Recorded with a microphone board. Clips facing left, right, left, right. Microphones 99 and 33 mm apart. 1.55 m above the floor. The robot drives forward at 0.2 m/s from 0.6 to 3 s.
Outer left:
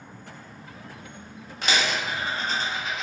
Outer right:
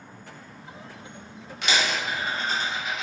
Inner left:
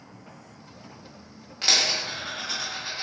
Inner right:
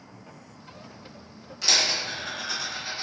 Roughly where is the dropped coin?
Left.